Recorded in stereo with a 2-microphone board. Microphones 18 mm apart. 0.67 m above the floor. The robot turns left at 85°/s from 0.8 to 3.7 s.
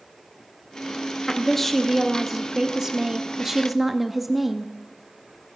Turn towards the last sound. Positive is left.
turn(degrees=-150)